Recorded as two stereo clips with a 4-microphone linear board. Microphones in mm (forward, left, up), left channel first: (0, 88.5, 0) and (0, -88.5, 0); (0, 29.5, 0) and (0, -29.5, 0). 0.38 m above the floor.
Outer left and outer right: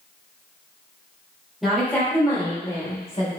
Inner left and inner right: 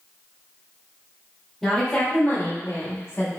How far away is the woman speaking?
About 1.5 m.